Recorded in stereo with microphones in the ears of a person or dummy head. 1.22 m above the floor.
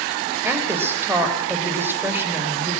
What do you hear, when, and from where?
0.4 s a woman speaking: 5° right (ahead or behind), 4.5 m